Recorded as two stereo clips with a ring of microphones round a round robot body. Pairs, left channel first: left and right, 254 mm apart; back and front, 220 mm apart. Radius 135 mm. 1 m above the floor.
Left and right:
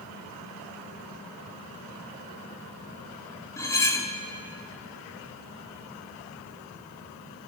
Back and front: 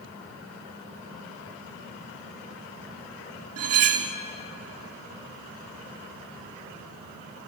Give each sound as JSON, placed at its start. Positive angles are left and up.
{"t": 3.6, "sound": "cutlery clinking", "azimuth_deg": 10, "distance_m": 1.2}